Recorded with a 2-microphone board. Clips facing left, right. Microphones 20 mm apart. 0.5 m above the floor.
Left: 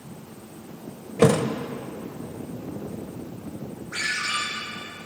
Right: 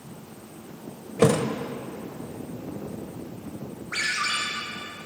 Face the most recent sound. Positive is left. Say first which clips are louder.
# right 1 dB
turn(degrees=-45)  # may be behind; listen again after turning